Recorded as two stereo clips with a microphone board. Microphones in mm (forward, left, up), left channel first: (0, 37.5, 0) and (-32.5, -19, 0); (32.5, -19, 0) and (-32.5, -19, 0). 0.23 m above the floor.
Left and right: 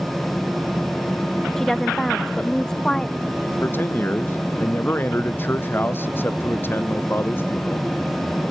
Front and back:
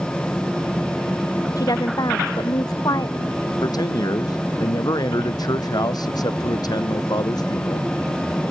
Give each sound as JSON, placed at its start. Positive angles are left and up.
{"t": 1.6, "sound": "a woman speaking", "azimuth_deg": -25}
{"t": 3.6, "sound": "a man speaking", "azimuth_deg": 5}